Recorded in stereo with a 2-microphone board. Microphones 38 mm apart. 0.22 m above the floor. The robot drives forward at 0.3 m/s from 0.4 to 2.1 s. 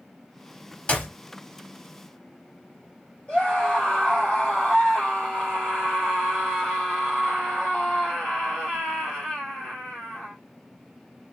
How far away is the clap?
About 1.5 m.